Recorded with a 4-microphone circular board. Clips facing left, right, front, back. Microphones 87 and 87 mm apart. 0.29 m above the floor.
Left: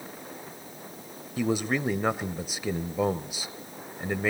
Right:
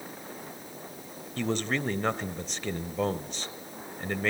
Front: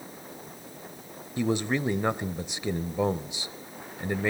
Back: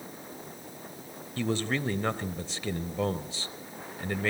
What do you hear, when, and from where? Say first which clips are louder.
1.4 s a man speaking: left 3 dB, front 3 dB; 30° left, 0.9 m